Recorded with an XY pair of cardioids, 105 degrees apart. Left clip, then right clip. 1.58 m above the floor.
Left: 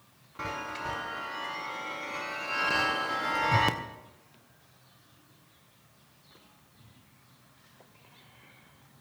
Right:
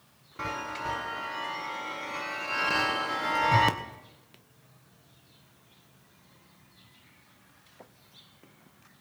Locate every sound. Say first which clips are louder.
0.4 s a chime: right 2 dB; 10° right, 1.0 m